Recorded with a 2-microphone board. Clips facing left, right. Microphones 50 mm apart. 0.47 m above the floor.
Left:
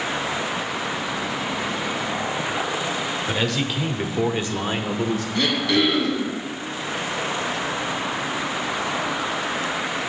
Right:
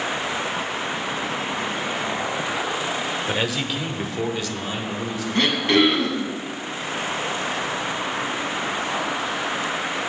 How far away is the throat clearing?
About 2.0 m.